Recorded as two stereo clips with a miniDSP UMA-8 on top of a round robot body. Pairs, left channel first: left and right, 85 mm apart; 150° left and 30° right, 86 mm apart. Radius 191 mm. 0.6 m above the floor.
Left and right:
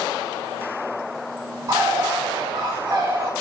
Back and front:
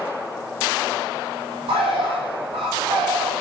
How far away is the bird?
About 0.7 m.